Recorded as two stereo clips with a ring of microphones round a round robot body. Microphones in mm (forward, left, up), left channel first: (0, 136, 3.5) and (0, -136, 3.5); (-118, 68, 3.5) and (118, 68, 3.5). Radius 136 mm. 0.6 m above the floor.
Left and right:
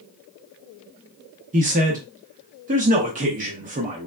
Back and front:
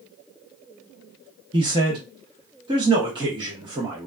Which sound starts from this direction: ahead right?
A man speaking, at 1.5 s.